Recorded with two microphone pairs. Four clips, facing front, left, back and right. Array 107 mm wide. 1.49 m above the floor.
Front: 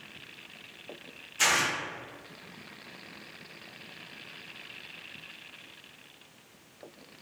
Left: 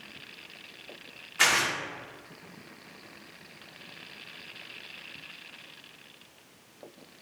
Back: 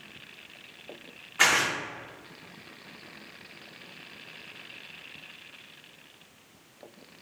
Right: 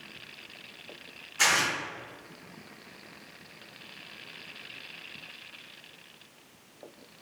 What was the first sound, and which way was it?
Tearing paper, 160° left.